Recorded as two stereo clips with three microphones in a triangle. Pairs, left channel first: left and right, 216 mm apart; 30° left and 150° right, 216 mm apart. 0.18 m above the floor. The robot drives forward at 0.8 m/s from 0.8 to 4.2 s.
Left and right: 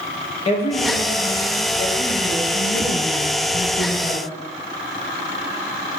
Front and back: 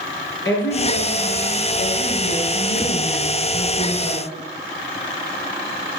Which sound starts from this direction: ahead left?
A woman speaking, at 0.5 s.